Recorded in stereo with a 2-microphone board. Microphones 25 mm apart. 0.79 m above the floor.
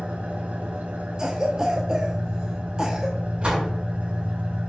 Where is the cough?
30° right (ahead or behind), 1.0 m.